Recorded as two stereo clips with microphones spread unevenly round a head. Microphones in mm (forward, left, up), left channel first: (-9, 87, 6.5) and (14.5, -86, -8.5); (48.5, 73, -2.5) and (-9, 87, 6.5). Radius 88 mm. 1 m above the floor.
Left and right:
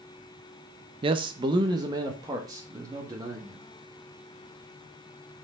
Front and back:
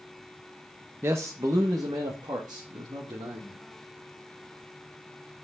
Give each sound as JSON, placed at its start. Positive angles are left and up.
{"t": 1.0, "sound": "a man speaking", "azimuth_deg": -130, "distance_m": 0.6}